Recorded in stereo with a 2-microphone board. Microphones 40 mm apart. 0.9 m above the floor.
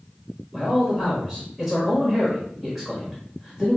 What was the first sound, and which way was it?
A man speaking, 10° left (ahead or behind).